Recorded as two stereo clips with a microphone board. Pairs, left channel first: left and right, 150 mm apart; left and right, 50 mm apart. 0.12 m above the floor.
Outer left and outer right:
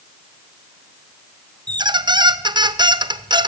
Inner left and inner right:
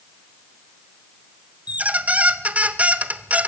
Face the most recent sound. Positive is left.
turn(degrees=-30)  # may be behind; listen again after turning